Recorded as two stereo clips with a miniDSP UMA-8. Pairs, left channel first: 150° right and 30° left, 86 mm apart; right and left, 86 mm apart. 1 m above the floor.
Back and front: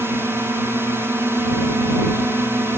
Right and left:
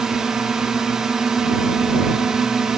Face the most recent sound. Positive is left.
turn(degrees=15)